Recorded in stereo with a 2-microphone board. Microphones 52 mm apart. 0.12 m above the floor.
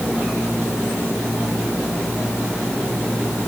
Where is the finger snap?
No finger snap in this recording.